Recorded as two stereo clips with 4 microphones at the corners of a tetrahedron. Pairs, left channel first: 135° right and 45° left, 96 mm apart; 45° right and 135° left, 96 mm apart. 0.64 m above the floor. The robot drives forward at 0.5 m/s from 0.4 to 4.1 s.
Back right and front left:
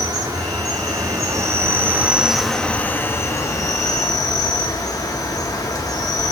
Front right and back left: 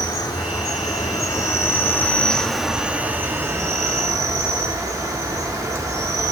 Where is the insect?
Straight ahead, 1.2 m; by 6.3 s straight behind, 1.0 m.